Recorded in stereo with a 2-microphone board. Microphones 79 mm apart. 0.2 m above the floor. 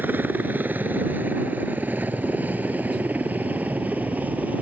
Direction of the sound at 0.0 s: 20° right (ahead or behind).